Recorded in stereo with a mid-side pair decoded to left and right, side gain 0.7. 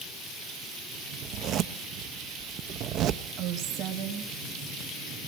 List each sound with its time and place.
1.2 s a zipper: 50° right, 0.6 m
3.4 s a woman speaking: 55° right, 1.7 m